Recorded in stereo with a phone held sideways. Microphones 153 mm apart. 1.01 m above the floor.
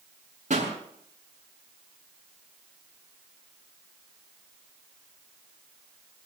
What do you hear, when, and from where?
0.5 s a pop: 55° right (ahead or behind), 7.5 m